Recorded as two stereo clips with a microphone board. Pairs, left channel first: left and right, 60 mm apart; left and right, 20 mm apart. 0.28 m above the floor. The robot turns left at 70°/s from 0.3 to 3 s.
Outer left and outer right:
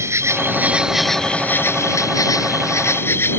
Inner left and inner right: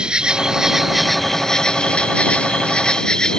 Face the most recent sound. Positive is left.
turn(degrees=45)